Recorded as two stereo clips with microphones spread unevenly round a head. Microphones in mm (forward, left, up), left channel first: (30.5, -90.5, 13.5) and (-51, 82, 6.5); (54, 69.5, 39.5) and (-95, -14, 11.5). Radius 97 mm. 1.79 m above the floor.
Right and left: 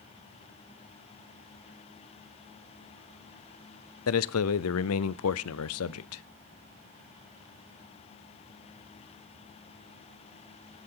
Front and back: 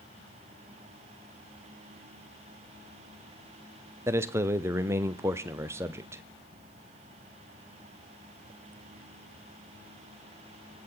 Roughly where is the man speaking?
Right.